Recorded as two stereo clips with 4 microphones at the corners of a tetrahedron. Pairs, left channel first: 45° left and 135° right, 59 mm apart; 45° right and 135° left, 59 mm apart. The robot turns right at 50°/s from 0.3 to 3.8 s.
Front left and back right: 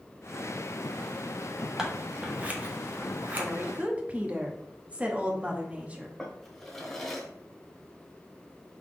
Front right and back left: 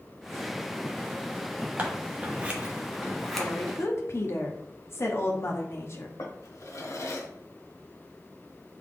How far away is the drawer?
About 0.9 m.